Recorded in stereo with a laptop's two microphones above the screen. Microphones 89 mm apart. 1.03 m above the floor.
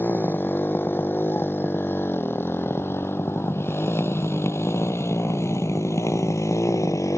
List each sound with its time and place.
0.0 s a motorcycle: 25° left (ahead or behind); by 7.2 s 35° left (ahead or behind)